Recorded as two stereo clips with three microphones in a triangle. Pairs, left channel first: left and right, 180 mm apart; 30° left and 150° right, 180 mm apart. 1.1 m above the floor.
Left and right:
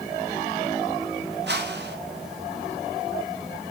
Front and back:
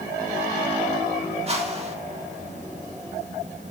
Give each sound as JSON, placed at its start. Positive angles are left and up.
{"t": 1.5, "sound": "a whoosh", "azimuth_deg": -95, "distance_m": 2.0}